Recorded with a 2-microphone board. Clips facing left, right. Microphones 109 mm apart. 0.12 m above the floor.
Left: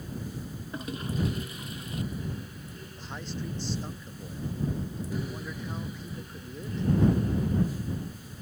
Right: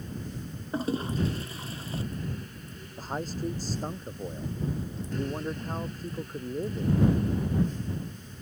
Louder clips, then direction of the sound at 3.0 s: Right 6 dB; 40° right (ahead or behind).